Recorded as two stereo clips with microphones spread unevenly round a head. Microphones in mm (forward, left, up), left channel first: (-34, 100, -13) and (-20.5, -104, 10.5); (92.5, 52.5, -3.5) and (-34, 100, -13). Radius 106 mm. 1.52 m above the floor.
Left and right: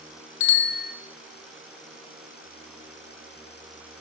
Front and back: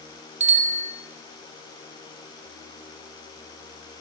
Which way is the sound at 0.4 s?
125° left.